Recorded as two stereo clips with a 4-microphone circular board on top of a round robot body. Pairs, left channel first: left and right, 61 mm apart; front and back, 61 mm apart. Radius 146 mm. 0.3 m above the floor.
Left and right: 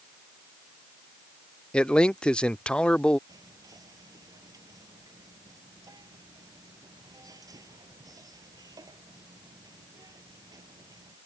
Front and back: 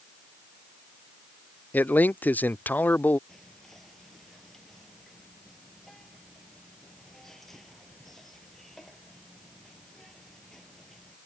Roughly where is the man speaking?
Ahead left.